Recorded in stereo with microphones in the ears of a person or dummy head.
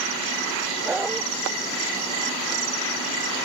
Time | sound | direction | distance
0.8 | a dog barking | centre (ahead or behind) | ?